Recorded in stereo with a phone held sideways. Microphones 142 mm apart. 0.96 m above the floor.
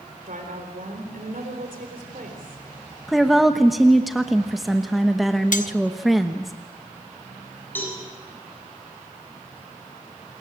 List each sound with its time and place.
0.3 s a woman speaking: 75° right (ahead or behind), 3.5 m
3.1 s a woman speaking: centre (ahead or behind), 1.0 m
5.5 s cutlery clinking: 65° left (ahead or behind), 0.6 m
7.8 s a cowbell: 15° left (ahead or behind), 8.5 m